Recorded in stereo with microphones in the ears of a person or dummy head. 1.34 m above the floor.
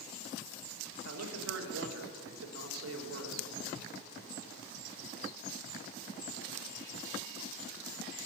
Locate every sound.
1.1 s a man speaking: 80° right, 1.8 m